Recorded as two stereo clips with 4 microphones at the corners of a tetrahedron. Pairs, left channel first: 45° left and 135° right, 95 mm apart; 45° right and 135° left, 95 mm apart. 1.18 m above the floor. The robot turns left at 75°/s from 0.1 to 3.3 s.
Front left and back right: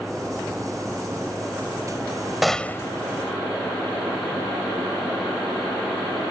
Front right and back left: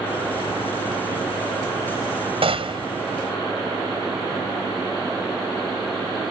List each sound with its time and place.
2.4 s a gunshot: 140° left; by 2.9 s 100° left